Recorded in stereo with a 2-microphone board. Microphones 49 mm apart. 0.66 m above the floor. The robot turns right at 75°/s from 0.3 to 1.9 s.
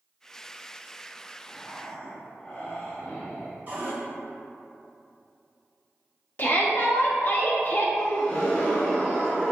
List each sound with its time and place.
1.5 s breathing: 75° left, 1.1 m; by 3.6 s 110° left, 1.1 m
3.7 s a cupboard door: 40° right (ahead or behind), 1.7 m
6.4 s a shout: 45° left (ahead or behind), 0.8 m
8.0 s a gasp: 25° left (ahead or behind), 1.7 m